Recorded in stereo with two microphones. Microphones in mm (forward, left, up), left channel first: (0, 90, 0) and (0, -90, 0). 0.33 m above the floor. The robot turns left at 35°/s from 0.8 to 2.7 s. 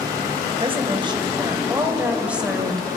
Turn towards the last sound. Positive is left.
turn(degrees=180)